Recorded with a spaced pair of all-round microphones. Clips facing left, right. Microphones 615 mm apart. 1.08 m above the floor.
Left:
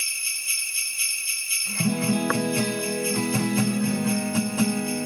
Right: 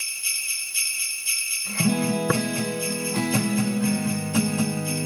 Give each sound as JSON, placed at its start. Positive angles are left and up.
{"t": 2.3, "sound": "tapping", "side_deg": -50}